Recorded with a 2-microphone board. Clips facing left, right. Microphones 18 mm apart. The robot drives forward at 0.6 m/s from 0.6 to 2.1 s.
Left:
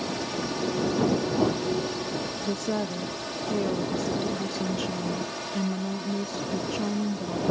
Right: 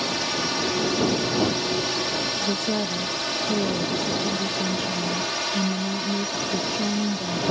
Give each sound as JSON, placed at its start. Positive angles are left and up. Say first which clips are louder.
{"t": 0.0, "sound": "a drone", "louder": "right 5 dB", "side_deg": -50}
{"t": 2.4, "sound": "a woman speaking", "louder": "right 4 dB", "side_deg": 5}